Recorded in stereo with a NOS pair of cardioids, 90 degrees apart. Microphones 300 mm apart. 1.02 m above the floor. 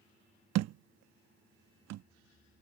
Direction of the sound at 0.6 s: 60° right.